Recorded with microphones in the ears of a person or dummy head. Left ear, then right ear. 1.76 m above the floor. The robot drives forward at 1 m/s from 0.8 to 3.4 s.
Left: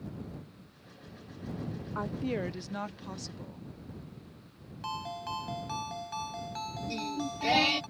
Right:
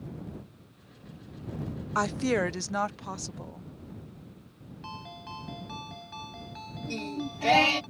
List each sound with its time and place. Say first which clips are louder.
1.9 s a woman speaking: right 8 dB; 70° right (ahead or behind); by 3.7 s 30° right (ahead or behind)
4.8 s a ringtone: left 5 dB; 25° left (ahead or behind)
6.9 s singing: right 2 dB; 30° right (ahead or behind)